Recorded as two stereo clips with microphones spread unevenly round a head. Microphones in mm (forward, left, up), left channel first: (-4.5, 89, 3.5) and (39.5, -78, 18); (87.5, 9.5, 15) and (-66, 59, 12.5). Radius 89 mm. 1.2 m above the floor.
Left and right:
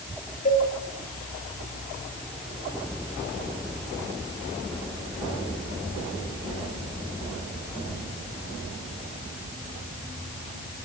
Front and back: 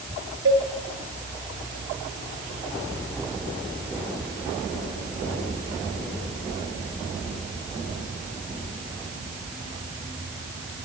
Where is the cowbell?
155° left, 6 m.